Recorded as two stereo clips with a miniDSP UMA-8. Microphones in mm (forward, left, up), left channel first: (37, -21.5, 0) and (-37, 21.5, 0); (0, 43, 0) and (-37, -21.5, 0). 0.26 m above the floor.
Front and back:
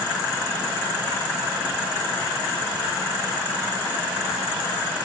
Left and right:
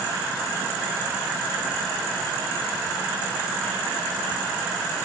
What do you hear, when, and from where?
Only background noise.